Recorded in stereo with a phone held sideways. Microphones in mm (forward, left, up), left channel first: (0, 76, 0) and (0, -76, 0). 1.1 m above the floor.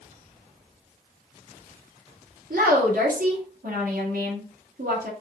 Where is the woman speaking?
70° right (ahead or behind), 1.9 m.